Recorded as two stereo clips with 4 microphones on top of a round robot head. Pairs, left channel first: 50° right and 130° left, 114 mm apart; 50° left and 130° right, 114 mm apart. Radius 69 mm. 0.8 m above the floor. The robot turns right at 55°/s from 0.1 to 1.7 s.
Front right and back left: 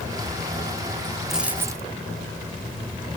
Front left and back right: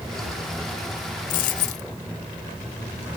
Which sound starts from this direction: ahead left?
A dropped coin, at 1.3 s.